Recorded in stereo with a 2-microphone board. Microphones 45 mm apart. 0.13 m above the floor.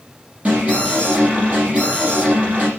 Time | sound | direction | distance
0.5 | an alarm | 35° right (ahead or behind) | 5.5 m